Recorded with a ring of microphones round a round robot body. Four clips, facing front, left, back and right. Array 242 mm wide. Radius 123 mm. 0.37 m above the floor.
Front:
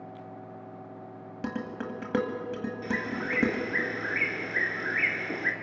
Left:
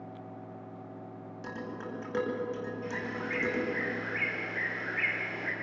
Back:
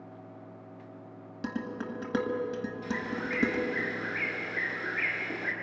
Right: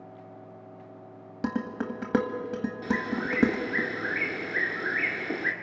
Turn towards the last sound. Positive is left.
turn(degrees=-70)